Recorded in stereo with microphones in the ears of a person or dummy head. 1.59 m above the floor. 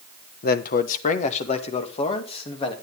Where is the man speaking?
60° left (ahead or behind), 0.9 m; by 2.7 s 35° left (ahead or behind), 2.5 m.